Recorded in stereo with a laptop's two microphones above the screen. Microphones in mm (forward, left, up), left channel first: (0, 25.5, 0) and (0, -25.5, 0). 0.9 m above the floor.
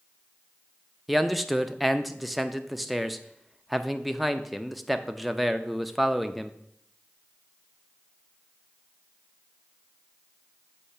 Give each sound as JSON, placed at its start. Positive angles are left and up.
{"t": 1.1, "sound": "a man speaking", "side_deg": 0, "distance_m": 0.5}